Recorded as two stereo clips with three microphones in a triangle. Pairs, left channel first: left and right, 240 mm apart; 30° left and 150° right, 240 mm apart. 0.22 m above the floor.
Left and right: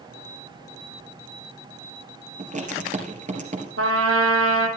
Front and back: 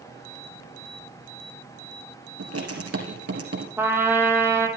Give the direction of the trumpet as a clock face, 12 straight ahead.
2 o'clock.